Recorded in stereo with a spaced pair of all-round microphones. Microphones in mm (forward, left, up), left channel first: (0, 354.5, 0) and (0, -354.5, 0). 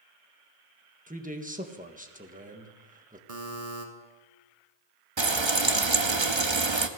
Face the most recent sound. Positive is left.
turn(degrees=-40)  # may be behind; listen again after turning